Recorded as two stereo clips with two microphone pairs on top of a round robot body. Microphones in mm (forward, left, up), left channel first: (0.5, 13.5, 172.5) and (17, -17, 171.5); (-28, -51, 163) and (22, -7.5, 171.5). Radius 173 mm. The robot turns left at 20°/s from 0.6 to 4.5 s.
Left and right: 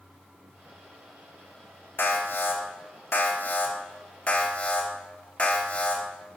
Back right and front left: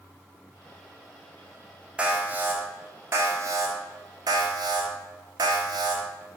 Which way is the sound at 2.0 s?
115° left.